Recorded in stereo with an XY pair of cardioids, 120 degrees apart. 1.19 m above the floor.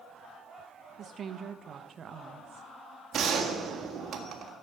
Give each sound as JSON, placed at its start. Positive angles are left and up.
{"t": 1.0, "sound": "a woman speaking", "azimuth_deg": -45, "distance_m": 1.2}
{"t": 3.1, "sound": "a gunshot", "azimuth_deg": -50, "distance_m": 1.7}